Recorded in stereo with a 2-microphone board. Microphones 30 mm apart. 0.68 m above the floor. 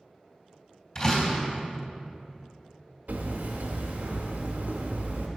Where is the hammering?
80° right, 1.3 m.